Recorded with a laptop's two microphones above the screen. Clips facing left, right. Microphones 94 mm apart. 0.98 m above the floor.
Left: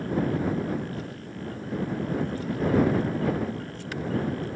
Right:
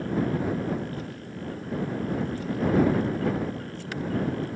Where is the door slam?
I don't hear a door slam.